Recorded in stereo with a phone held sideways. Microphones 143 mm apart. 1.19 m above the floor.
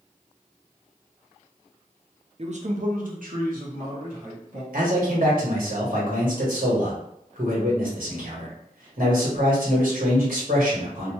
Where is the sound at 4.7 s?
80° right, 1.4 m.